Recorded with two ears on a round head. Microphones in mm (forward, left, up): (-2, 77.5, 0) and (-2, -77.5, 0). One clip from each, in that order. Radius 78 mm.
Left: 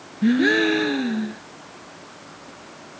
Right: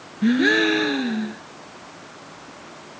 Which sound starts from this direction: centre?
A gasp, at 0.2 s.